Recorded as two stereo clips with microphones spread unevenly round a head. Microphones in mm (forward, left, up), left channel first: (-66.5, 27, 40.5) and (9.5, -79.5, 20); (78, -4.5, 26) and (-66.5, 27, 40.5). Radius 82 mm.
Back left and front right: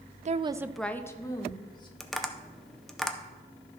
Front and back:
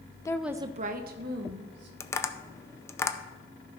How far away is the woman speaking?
About 0.6 m.